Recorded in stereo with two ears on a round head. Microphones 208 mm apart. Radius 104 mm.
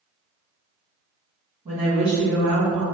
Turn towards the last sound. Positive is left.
turn(degrees=-85)